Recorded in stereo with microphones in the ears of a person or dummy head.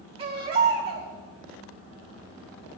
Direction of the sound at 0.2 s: 30° right (ahead or behind).